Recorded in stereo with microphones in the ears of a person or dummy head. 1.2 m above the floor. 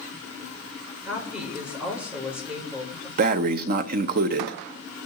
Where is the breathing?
55° right (ahead or behind), 0.7 m.